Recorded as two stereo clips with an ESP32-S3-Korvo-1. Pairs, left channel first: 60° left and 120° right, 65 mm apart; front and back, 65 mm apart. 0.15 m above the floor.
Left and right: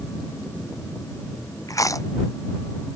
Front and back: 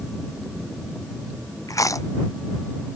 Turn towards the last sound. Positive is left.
turn(degrees=30)